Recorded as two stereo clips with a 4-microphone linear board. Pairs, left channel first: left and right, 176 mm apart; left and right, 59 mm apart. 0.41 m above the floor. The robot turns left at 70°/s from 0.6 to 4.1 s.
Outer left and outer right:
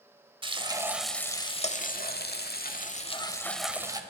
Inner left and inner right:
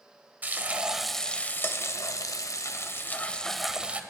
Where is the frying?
150° right, 1.0 m; by 4.0 s 25° right, 1.0 m.